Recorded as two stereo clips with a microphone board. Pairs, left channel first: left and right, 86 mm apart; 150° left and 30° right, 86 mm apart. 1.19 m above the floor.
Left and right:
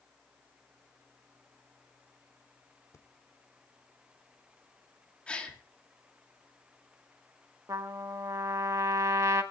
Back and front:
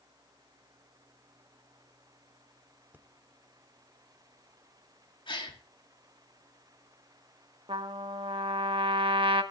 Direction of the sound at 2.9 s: 40° left.